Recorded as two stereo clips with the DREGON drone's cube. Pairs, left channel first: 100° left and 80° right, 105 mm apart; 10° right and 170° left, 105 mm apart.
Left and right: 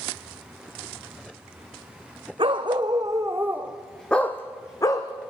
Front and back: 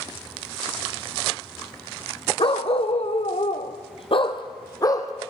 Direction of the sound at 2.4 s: 40° right.